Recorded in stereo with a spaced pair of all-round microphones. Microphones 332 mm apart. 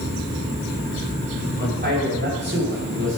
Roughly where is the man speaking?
Right.